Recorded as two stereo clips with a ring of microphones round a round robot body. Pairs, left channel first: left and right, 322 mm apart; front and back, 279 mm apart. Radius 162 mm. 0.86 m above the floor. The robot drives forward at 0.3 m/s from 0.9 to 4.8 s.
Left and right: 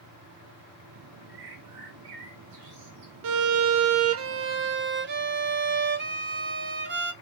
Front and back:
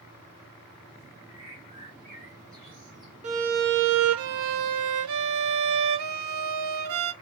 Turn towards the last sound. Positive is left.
turn(degrees=-145)